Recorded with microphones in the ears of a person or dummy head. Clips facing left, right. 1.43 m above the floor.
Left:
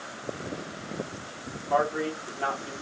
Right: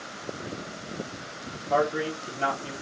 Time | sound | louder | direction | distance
1.7 | a man speaking | right 1 dB | 30° right (ahead or behind) | 1.4 m